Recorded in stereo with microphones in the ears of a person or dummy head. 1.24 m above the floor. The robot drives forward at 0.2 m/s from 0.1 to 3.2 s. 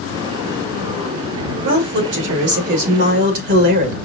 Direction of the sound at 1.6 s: 60° right (ahead or behind).